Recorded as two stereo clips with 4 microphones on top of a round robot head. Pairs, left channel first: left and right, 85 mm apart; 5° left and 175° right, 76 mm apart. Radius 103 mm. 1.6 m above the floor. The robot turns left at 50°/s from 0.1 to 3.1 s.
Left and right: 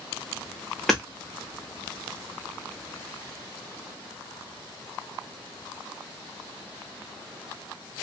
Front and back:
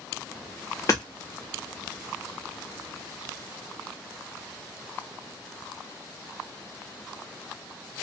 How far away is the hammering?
About 0.5 m.